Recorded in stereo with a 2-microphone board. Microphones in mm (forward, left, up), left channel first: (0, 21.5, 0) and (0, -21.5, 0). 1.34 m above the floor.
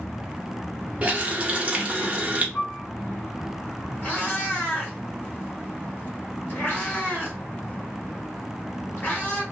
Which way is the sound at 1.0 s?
30° right (ahead or behind).